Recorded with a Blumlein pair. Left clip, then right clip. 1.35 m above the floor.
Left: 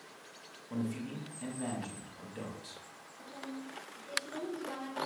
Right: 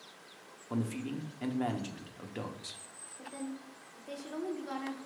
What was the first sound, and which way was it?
A man speaking, 65° right.